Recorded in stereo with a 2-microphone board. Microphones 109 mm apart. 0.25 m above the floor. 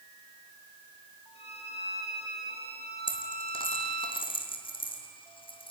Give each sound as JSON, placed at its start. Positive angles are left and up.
{"t": 1.4, "sound": "a violin", "side_deg": 65, "distance_m": 5.5}
{"t": 3.1, "sound": "a dropped coin", "side_deg": 50, "distance_m": 2.5}